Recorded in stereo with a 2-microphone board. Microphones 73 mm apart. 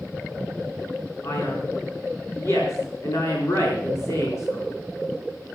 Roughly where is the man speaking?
Left.